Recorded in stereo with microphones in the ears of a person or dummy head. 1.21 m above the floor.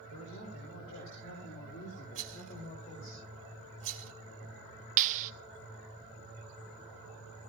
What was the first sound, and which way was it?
A man speaking, 85° left.